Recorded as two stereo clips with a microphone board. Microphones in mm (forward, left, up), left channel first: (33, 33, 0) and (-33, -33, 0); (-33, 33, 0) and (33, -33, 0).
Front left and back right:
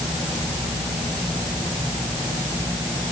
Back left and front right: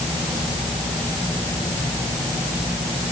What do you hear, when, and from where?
Only background noise.